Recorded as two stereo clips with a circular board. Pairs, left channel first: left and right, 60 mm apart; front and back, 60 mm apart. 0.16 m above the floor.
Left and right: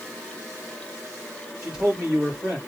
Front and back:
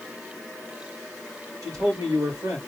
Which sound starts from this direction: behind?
A man speaking, at 1.6 s.